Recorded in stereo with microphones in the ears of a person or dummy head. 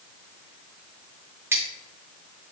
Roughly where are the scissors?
Centre.